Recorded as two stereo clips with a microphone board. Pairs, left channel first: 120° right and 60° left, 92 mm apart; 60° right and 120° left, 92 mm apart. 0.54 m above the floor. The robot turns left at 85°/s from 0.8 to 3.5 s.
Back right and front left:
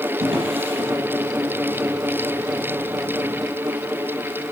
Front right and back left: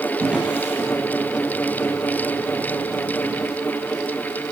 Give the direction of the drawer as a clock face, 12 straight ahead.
11 o'clock.